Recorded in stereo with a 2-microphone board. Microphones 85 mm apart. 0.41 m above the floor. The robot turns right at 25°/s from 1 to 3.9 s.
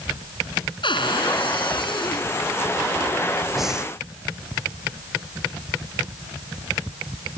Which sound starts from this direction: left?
A cupboard door, at 0.8 s.